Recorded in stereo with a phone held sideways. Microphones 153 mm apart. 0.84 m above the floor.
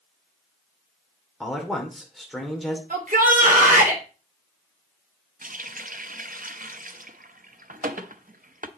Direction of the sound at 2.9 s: 60° right (ahead or behind).